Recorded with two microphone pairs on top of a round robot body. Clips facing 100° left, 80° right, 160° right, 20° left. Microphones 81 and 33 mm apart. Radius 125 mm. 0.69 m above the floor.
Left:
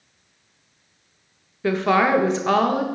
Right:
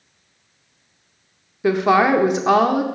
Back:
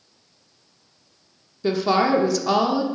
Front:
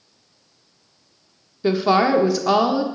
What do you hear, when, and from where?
1.6 s a woman speaking: 30° right, 0.9 m